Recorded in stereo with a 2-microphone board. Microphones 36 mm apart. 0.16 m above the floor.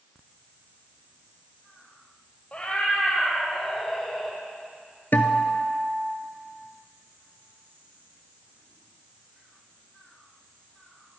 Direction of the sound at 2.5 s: 30° left (ahead or behind).